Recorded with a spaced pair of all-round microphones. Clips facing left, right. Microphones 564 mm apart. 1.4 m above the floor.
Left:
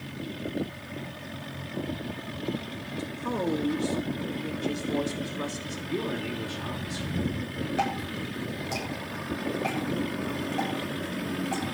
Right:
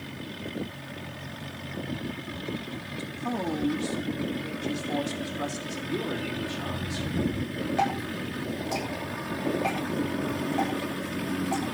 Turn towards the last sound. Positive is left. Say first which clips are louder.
# right 1 dB
turn(degrees=-20)  # may be behind; listen again after turning